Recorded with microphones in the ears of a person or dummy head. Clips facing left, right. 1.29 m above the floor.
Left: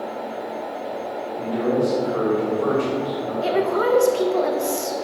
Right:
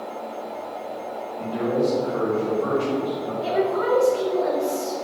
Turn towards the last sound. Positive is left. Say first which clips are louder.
# left 2 dB
turn(degrees=55)  # may be behind; listen again after turning